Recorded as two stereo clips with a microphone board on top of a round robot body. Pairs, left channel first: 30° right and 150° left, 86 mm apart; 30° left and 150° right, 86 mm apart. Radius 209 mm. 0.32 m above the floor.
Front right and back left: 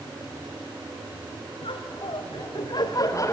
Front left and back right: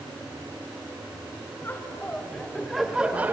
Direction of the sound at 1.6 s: 30° right.